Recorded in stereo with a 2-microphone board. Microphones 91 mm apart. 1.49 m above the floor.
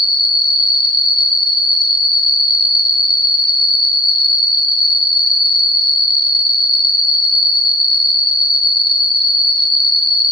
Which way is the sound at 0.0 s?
65° left (ahead or behind).